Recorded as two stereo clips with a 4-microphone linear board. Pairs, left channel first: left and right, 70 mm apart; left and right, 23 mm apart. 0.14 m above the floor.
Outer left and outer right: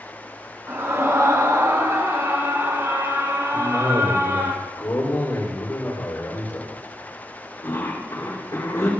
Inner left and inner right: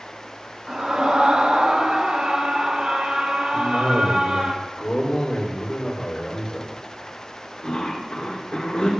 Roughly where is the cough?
Left.